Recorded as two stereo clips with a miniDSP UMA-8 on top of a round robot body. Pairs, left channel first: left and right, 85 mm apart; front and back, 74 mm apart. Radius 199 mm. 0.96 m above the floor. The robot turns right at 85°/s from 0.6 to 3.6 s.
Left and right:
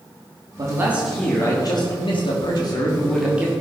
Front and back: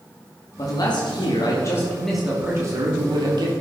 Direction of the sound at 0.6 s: 45° right.